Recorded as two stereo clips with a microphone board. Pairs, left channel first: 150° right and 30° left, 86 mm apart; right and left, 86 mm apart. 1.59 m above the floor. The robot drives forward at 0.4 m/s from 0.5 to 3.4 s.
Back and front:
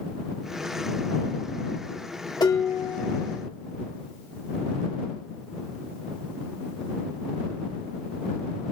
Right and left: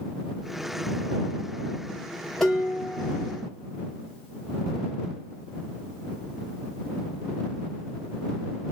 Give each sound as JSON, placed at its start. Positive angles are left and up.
{"t": 2.4, "sound": "dishes clattering", "azimuth_deg": -175, "distance_m": 1.4}